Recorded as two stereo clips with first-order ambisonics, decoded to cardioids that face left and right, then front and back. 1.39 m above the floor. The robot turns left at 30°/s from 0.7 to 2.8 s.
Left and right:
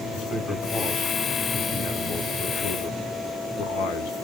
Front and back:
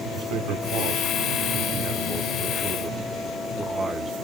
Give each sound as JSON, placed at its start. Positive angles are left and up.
{"t": 0.1, "sound": "a man speaking", "azimuth_deg": 165, "distance_m": 1.0}